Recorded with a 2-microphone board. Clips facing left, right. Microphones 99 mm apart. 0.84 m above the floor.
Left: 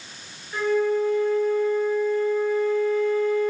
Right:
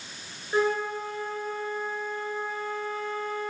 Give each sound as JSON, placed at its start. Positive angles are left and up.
{"t": 0.5, "sound": "a flute", "side_deg": -35, "distance_m": 0.7}